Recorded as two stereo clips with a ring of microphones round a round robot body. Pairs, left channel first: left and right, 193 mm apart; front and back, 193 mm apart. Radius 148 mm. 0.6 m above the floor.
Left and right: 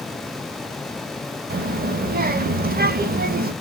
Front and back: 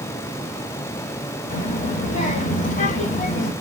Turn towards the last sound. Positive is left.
turn(degrees=-50)